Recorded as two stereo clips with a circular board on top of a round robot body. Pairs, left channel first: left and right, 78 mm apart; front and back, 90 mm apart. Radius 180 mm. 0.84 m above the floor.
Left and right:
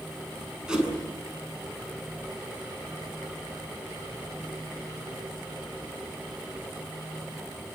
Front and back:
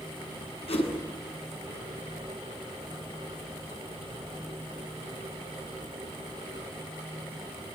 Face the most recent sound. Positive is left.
turn(degrees=-10)